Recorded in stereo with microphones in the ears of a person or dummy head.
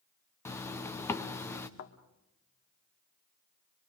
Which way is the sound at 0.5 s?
15° left (ahead or behind).